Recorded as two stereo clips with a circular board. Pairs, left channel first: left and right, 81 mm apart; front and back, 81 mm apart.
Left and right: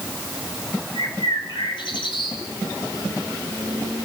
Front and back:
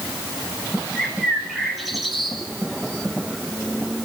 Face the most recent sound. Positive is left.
turn(degrees=90)